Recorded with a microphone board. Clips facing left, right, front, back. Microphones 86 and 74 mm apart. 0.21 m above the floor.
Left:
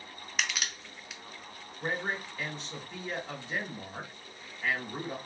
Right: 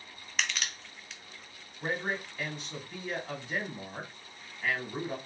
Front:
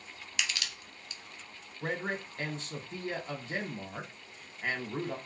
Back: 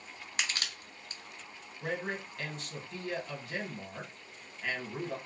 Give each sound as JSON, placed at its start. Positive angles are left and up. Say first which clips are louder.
{"t": 0.4, "sound": "crushing", "louder": "even, even", "azimuth_deg": 170, "distance_m": 0.5}
{"t": 1.8, "sound": "a man speaking", "louder": "even, front 1 dB", "azimuth_deg": -5, "distance_m": 1.1}